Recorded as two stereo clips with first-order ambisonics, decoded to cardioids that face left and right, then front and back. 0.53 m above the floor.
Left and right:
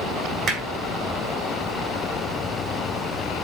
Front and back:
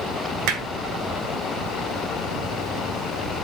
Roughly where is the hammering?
Behind right.